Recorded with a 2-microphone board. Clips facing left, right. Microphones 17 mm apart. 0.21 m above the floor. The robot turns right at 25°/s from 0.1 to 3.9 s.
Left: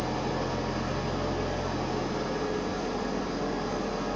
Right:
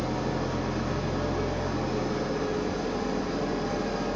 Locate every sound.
0.0 s an engine running: 110° left, 1.6 m; by 4.2 s 155° right, 1.6 m